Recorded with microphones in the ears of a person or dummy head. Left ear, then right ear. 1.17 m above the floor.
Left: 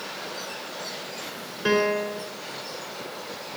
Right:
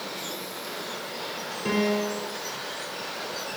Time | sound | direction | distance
1.6 | a piano | 40° left (ahead or behind) | 5 m